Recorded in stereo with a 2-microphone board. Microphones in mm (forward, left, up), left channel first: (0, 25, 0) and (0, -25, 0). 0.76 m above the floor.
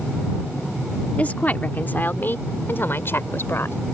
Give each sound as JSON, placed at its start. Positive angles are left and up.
{"t": 1.2, "sound": "a woman speaking", "side_deg": 30}